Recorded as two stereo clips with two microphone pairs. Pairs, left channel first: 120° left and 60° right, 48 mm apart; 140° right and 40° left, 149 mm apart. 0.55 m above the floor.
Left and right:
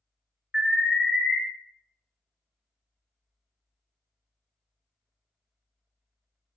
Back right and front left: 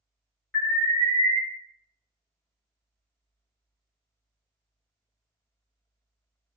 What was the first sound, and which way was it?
An alarm, 90° right.